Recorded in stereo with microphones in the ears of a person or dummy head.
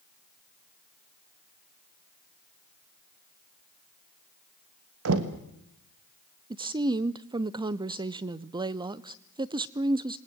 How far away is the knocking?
About 1.3 m.